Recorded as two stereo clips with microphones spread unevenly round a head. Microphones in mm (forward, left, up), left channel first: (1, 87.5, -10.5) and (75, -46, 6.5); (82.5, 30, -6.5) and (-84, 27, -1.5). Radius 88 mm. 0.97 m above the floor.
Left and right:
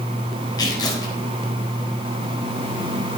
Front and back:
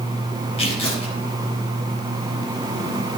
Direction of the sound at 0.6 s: 55° left.